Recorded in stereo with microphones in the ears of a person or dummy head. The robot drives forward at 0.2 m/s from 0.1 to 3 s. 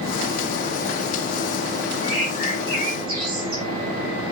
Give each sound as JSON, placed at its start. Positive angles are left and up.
{"t": 2.0, "sound": "a bird", "side_deg": -50, "distance_m": 6.5}